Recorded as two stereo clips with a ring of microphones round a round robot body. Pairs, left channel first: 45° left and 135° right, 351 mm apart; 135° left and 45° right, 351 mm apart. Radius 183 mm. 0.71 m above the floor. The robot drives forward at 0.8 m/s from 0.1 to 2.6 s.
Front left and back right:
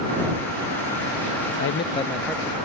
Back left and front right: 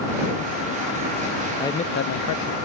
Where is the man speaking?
55° left; by 2.5 s 150° left.